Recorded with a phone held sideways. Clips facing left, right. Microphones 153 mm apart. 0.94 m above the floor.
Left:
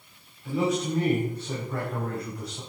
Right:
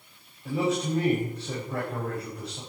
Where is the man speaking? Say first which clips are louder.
Left 1 dB; 25° right (ahead or behind), 4.5 m.